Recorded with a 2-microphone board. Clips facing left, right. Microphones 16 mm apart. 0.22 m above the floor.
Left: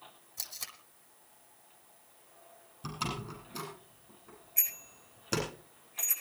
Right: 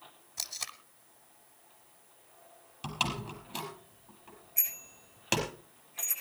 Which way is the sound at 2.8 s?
80° right.